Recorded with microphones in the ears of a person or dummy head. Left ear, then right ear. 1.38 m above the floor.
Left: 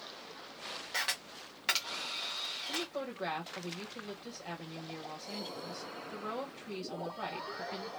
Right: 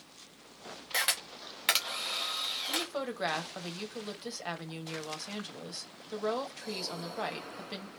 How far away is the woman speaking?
About 1.2 m.